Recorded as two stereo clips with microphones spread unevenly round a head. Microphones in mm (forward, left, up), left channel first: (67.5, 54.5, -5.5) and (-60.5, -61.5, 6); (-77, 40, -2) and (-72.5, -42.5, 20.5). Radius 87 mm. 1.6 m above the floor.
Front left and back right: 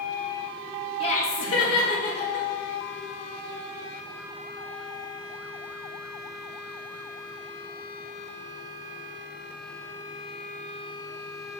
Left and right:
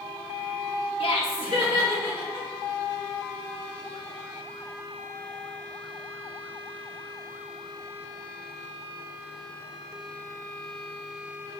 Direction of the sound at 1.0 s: 105° left.